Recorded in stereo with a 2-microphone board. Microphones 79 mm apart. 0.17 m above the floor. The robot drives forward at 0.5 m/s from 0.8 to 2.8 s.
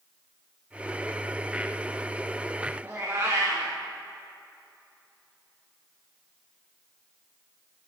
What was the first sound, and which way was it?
A cat meowing, 25° right (ahead or behind).